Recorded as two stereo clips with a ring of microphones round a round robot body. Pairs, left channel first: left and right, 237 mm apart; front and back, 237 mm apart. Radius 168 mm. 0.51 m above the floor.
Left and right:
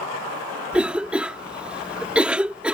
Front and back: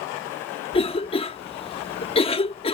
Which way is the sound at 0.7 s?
10° right.